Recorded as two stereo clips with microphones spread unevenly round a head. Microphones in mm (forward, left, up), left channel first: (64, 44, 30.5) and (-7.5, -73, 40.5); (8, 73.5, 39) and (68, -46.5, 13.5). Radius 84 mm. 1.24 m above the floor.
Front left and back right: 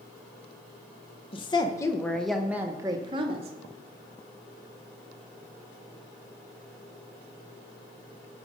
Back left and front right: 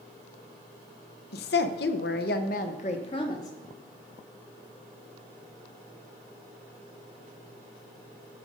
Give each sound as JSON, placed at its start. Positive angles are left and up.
{"t": 1.3, "sound": "a woman speaking", "azimuth_deg": 115, "distance_m": 1.0}